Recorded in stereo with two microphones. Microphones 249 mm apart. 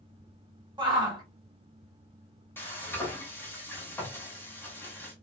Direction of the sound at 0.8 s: 20° right (ahead or behind).